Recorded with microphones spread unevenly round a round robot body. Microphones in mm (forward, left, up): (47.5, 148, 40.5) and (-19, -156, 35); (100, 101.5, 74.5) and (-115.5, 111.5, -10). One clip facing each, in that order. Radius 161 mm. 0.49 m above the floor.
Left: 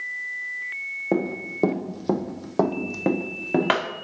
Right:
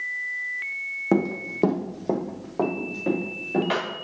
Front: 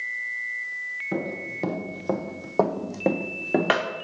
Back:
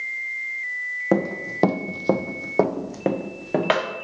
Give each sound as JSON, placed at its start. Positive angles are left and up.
{"t": 1.1, "sound": "running footsteps", "azimuth_deg": -160, "distance_m": 1.1}